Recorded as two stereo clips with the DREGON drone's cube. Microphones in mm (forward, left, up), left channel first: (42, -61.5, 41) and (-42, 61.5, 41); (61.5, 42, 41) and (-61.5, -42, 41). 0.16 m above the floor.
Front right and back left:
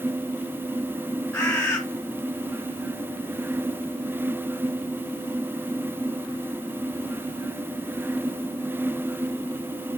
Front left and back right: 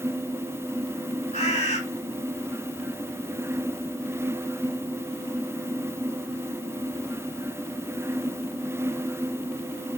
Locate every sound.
1.3 s a bird: 10° left, 1.9 m